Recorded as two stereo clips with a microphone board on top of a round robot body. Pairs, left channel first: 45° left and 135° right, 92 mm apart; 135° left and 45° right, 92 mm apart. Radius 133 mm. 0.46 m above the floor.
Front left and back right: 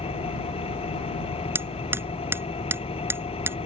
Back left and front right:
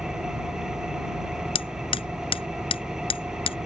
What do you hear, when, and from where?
0.0 s an engine running: 40° left
1.6 s hammering: 160° left